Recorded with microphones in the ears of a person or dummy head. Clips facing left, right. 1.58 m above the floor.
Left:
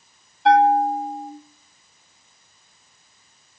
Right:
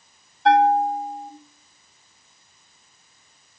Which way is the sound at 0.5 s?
5° left (ahead or behind).